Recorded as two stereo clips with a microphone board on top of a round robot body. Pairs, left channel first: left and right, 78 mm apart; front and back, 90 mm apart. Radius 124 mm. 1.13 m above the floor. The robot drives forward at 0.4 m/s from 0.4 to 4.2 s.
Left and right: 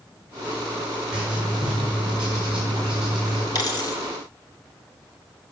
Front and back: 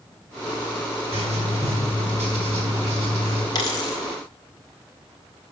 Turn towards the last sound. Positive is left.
turn(degrees=55)